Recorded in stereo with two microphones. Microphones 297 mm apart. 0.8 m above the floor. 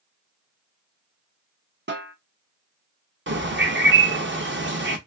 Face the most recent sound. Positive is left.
turn(degrees=-40)  # may be behind; listen again after turning